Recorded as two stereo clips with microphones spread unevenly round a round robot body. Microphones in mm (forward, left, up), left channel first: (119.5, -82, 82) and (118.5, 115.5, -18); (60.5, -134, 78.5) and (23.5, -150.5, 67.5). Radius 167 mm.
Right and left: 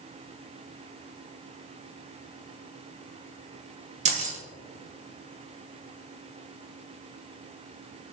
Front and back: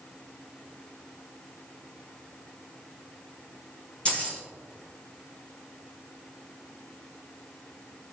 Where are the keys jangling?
95° left, 1.3 m.